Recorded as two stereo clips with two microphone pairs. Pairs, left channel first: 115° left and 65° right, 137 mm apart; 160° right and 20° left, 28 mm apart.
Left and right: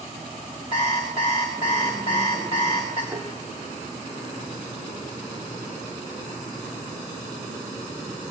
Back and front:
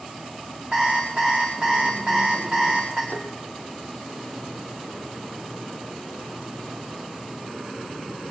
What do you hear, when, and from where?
0.7 s an alarm clock: 90° left, 6.5 m
3.1 s tapping: 140° right, 1.5 m